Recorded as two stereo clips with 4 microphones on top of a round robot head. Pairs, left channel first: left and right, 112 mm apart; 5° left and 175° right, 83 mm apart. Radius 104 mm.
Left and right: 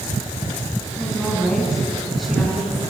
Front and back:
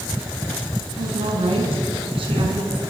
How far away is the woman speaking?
About 6.5 m.